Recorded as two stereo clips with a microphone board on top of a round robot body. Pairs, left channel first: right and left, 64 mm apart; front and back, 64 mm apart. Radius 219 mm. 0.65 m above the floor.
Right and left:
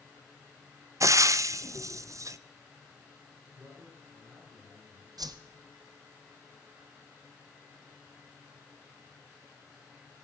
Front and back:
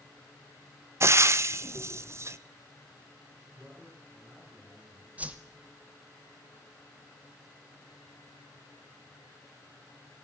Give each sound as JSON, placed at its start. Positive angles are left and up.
{"t": 1.0, "sound": "frying", "azimuth_deg": 130, "distance_m": 0.5}
{"t": 3.5, "sound": "a man speaking", "azimuth_deg": 125, "distance_m": 9.0}
{"t": 5.2, "sound": "a whoosh", "azimuth_deg": 110, "distance_m": 0.8}